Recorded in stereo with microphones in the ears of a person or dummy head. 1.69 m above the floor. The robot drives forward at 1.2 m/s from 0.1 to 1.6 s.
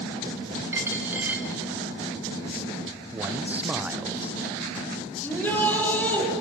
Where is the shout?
10° left (ahead or behind), 6 m.